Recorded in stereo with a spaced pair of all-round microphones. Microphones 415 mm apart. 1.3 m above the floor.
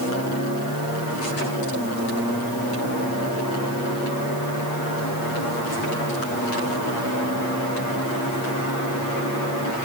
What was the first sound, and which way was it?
Only background noise.